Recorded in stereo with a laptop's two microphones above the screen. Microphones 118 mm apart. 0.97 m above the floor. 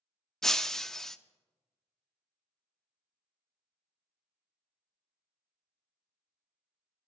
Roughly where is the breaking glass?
Centre.